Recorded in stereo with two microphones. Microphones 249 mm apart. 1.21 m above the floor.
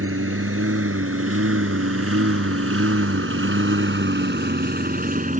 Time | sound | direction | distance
0.0 | a lawn mower | 60° right (ahead or behind) | ?